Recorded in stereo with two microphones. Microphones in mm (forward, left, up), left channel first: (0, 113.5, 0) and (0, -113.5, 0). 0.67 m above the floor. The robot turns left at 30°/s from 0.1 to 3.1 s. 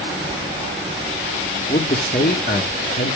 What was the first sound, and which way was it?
A man speaking, 130° left.